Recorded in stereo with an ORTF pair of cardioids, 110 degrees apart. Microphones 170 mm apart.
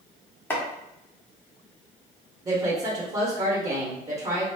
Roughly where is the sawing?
No sawing in this recording.